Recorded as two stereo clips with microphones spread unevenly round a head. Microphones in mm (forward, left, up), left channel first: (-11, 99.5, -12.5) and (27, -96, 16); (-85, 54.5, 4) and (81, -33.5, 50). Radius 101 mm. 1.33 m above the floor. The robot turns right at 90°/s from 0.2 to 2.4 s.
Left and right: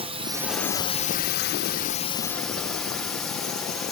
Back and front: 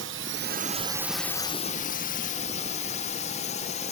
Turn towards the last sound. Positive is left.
turn(degrees=-175)